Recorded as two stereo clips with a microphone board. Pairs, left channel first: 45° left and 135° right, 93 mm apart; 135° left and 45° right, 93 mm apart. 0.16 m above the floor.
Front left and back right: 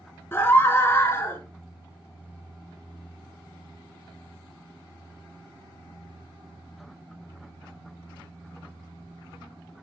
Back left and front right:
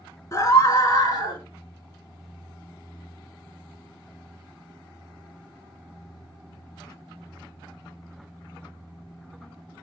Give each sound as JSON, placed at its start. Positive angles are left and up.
{"t": 0.3, "sound": "a scream", "azimuth_deg": 100, "distance_m": 2.0}